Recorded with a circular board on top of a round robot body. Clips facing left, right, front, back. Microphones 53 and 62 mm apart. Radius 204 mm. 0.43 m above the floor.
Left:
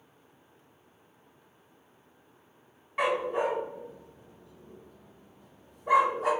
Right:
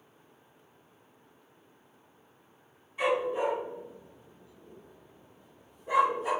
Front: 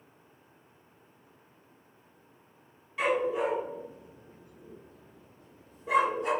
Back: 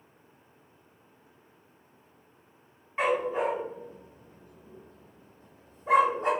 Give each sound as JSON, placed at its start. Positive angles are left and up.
{"t": 3.0, "sound": "a dog barking", "azimuth_deg": 120, "distance_m": 1.0}